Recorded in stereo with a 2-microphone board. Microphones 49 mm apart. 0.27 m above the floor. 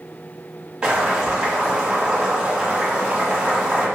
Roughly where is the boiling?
Right.